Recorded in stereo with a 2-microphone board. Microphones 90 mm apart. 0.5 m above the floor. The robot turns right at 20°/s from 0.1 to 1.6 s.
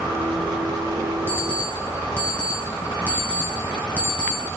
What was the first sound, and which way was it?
An alarm clock, 25° left (ahead or behind).